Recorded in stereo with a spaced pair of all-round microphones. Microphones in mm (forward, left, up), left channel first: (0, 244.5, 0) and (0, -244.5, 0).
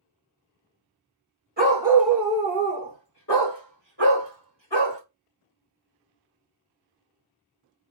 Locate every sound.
1.6 s a dog barking: 20° right (ahead or behind), 1.6 m; by 5.0 s 60° left (ahead or behind), 3.5 m